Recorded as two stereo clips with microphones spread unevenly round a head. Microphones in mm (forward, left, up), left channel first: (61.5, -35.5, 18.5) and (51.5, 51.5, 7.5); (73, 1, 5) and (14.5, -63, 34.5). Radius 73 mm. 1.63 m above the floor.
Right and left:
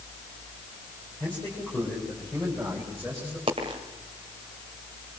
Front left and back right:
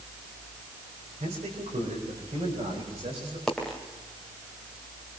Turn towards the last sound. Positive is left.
turn(degrees=145)